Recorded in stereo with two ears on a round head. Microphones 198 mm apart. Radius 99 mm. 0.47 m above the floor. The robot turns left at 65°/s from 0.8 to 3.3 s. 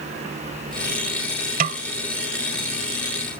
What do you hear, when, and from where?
1.6 s a snare drum: 35° right (ahead or behind); by 1.8 s 50° right (ahead or behind)